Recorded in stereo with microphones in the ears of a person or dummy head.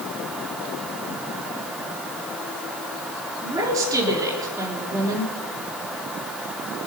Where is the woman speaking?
20° right (ahead or behind), 3.5 m.